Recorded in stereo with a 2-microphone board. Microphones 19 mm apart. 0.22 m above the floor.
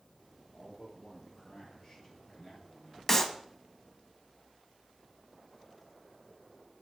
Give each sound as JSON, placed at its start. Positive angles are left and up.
{"t": 0.5, "sound": "a man speaking", "side_deg": 30, "distance_m": 5.5}
{"t": 3.1, "sound": "a clap", "side_deg": 20, "distance_m": 1.3}